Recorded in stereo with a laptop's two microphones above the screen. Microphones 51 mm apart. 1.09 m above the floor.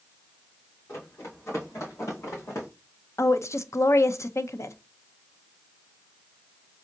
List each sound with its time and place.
0.9 s running footsteps: 65° left (ahead or behind), 3 m
3.2 s a woman speaking: 70° left (ahead or behind), 0.5 m